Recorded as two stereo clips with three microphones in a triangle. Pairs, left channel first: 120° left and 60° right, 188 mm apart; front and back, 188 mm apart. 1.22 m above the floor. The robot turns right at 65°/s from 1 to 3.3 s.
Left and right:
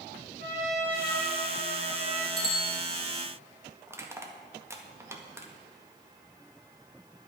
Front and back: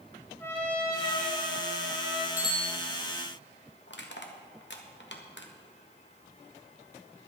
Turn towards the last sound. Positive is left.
turn(degrees=15)